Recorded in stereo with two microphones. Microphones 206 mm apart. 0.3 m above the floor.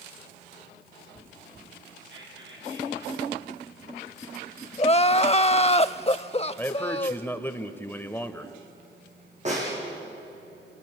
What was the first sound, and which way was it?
Whispering, 70° right (ahead or behind).